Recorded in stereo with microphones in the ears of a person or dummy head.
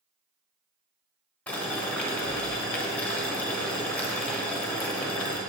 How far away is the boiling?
About 1.1 m.